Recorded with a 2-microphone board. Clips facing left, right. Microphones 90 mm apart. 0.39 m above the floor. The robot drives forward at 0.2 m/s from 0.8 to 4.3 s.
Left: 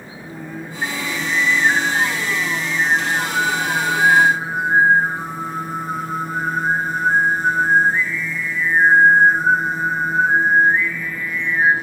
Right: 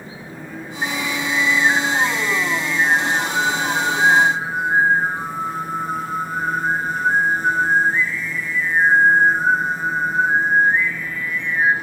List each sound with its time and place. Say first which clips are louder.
0.2 s singing: left 3 dB; 5° left (ahead or behind), 3 m